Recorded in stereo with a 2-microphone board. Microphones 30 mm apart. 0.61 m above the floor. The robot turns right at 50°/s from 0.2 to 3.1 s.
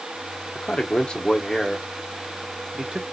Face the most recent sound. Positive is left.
turn(degrees=-120)